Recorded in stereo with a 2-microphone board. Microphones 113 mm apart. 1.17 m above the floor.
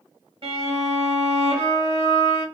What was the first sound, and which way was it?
A violin, 55° right (ahead or behind).